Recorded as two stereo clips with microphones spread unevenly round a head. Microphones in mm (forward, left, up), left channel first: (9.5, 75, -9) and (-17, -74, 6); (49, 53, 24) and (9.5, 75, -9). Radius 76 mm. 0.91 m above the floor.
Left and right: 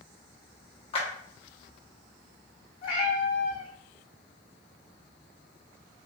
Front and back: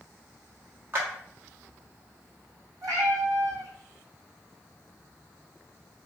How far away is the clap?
About 1.1 m.